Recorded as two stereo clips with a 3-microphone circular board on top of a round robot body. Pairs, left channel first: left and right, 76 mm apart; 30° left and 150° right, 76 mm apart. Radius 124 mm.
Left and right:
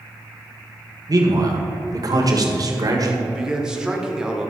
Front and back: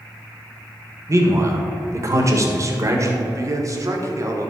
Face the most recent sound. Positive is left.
turn(degrees=-165)